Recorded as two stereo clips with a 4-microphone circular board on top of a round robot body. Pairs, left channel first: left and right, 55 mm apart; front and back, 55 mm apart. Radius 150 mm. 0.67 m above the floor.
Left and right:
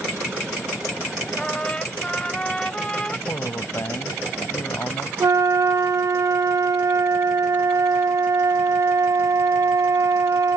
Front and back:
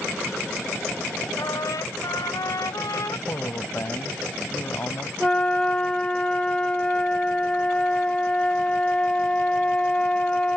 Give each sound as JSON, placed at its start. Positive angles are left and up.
{"t": 1.4, "sound": "a trumpet", "azimuth_deg": 15}
{"t": 3.3, "sound": "a man speaking", "azimuth_deg": 45}
{"t": 5.2, "sound": "a flute", "azimuth_deg": -70}